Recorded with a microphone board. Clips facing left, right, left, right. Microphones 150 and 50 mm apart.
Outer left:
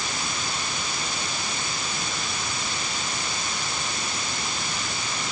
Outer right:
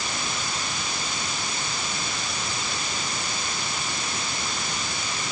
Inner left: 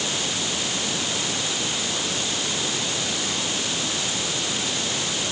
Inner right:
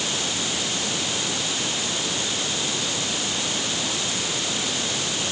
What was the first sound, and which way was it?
Only background noise.